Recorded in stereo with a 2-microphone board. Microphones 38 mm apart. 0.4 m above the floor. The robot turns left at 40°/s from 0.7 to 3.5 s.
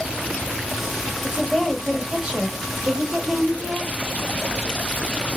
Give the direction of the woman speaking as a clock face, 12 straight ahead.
11 o'clock.